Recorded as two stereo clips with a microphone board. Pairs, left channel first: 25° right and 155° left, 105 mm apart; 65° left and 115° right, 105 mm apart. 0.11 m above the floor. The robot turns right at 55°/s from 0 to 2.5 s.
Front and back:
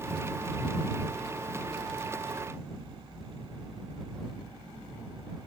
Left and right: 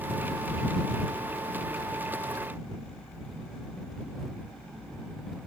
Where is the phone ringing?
No phone ringing in this recording.